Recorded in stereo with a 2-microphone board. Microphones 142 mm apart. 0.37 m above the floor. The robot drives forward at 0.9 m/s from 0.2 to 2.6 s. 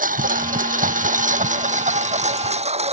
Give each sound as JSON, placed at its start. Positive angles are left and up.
{"t": 0.0, "sound": "a lawn mower", "side_deg": -85}